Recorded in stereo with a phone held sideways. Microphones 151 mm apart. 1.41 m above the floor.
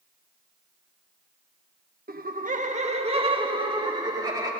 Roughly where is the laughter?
Right.